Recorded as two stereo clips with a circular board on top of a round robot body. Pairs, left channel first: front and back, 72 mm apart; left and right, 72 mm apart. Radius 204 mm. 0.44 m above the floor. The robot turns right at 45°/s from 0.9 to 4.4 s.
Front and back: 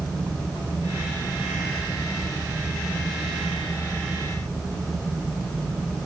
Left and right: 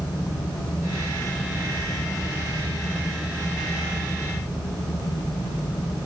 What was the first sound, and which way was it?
Only background noise.